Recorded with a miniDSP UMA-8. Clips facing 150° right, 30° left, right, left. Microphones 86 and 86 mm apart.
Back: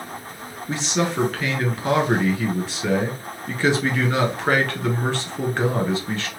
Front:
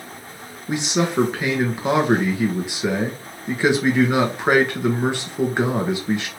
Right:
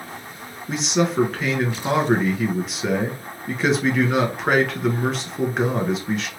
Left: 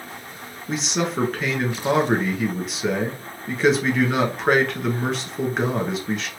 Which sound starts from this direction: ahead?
A man speaking, at 0.7 s.